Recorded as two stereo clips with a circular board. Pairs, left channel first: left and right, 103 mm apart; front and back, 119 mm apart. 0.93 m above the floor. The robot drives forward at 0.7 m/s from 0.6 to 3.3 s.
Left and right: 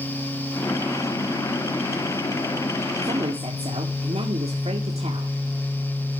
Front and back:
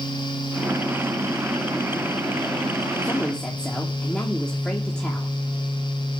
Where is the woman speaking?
75° right, 1.9 m; by 5.3 s 85° right, 1.9 m.